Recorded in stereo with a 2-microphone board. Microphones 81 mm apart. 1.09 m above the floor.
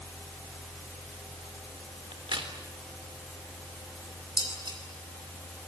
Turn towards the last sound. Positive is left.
turn(degrees=-70)  # may be behind; listen again after turning